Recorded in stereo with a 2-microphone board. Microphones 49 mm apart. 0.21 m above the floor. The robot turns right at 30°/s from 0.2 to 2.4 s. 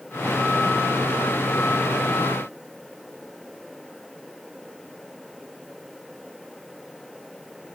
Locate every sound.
Only background noise.